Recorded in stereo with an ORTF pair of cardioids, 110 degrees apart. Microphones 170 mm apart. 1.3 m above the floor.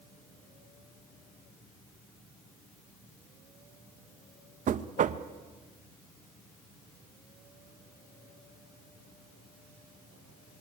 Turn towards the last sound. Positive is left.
turn(degrees=-50)